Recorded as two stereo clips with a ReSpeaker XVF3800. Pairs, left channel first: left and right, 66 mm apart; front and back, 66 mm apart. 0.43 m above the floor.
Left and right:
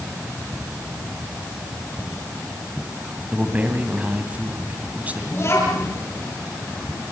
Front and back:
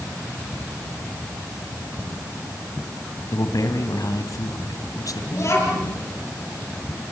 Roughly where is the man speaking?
Ahead right.